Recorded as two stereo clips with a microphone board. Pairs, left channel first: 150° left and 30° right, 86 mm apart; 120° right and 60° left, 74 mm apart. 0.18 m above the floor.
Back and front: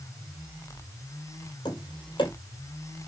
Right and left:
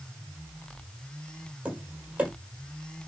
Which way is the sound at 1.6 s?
130° left.